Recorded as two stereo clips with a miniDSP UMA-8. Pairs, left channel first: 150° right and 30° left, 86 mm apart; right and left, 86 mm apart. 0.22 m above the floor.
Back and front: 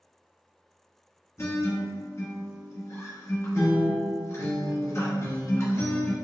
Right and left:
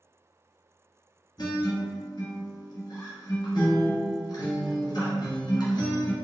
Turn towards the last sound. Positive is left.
turn(degrees=-100)